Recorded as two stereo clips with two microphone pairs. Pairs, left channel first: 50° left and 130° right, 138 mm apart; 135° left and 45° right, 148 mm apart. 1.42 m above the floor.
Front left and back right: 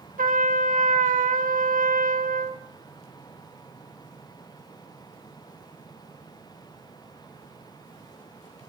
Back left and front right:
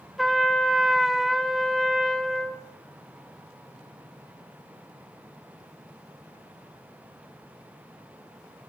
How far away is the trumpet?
About 1.5 m.